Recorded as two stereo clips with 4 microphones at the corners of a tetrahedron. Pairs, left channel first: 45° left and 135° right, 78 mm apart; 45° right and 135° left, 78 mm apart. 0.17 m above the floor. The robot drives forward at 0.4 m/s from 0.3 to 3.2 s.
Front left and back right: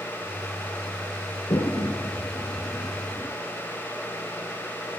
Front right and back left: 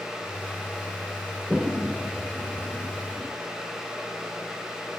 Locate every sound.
1.5 s a toilet flushing: 60° left, 1.5 m; by 3.4 s 90° left, 1.4 m